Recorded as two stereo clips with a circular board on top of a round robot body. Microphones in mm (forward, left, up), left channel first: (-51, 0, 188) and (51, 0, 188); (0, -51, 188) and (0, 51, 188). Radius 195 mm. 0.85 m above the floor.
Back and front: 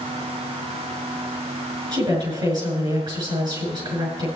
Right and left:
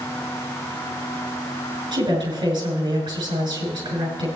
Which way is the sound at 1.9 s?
40° left.